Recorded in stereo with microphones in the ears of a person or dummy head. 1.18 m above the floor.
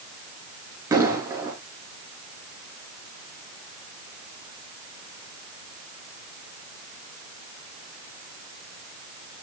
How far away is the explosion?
About 3.5 m.